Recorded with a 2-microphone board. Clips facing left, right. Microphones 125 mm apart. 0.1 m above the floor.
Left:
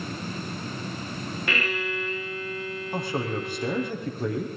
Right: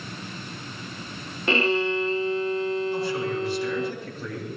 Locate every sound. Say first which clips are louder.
1.5 s a violin: right 9 dB; 30° right (ahead or behind), 0.5 m
2.9 s a man speaking: right 2 dB; 50° left (ahead or behind), 6 m